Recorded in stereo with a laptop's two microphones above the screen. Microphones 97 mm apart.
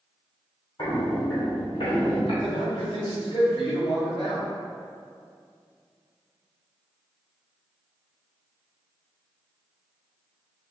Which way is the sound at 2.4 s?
75° left (ahead or behind).